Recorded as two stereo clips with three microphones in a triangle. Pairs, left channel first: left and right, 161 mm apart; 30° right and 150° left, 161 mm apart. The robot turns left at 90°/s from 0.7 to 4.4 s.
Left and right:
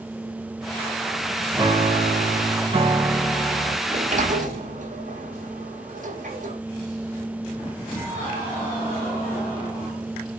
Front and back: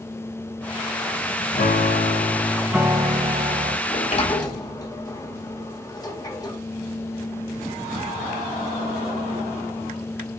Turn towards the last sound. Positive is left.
turn(degrees=-90)